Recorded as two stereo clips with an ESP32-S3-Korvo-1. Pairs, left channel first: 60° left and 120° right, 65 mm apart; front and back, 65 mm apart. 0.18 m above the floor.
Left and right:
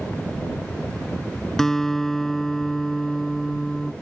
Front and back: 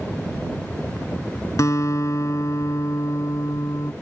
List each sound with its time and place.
1.6 s a guitar: 20° right